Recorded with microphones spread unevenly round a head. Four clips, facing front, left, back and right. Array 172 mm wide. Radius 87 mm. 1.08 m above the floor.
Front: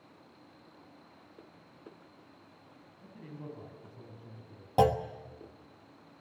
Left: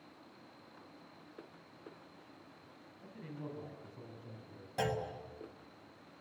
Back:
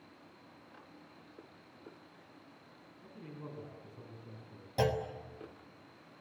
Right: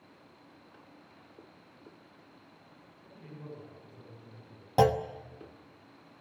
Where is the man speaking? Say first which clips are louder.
Left 2 dB, front 2 dB; 35° left, 9.5 m; by 4.7 s 30° left, 10 m.